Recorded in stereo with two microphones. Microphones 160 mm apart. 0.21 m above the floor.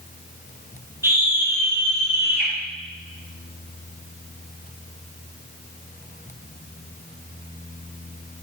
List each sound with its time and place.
1.0 s a scream: 15° right (ahead or behind), 7 m